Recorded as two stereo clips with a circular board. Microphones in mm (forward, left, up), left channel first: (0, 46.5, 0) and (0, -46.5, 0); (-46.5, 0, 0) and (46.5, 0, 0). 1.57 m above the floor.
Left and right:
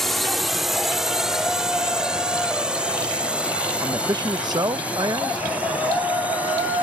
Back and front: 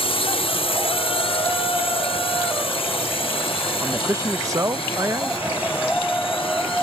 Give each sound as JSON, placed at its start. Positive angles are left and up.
{"t": 0.0, "sound": "a drone", "azimuth_deg": 180}
{"t": 3.8, "sound": "a man speaking", "azimuth_deg": -50}